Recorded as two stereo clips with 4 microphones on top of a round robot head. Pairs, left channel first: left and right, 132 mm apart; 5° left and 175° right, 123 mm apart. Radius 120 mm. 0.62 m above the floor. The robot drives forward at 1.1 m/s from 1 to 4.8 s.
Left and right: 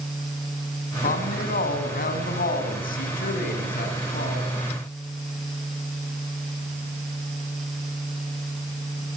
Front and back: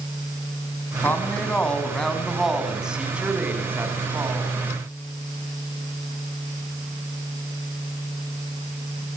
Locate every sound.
1.0 s a woman speaking: 80° left, 5.5 m; by 4.6 s 120° left, 6 m